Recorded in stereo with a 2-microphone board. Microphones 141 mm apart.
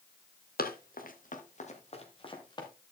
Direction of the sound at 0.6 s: 85° left.